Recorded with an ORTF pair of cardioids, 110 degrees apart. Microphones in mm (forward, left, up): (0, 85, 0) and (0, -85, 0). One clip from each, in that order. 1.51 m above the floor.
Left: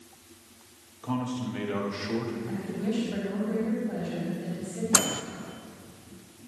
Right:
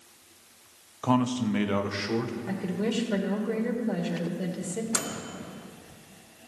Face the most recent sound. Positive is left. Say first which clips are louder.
# left 9 dB
turn(degrees=30)